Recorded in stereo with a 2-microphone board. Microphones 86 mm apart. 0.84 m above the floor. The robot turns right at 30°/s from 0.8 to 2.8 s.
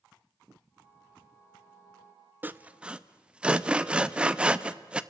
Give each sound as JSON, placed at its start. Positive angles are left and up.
{"t": 2.4, "sound": "sawing", "side_deg": -25, "distance_m": 0.5}